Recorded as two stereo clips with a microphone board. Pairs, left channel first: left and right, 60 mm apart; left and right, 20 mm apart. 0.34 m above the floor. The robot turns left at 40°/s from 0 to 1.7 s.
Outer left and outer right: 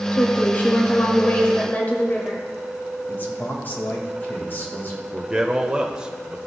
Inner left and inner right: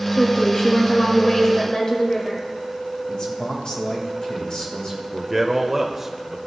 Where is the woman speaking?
130° left, 1.1 m; by 2.4 s 70° left, 1.1 m.